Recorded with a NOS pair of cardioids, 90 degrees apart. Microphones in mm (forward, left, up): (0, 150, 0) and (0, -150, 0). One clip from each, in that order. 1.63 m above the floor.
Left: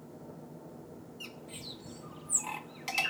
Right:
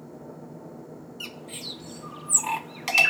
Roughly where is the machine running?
Ahead right.